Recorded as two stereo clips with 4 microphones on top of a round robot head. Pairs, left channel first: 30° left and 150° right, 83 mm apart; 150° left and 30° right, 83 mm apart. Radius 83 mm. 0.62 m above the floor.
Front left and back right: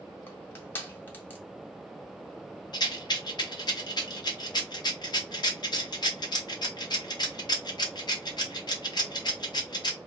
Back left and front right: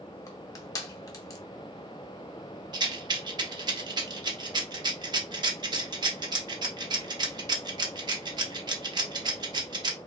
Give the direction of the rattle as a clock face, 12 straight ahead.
12 o'clock.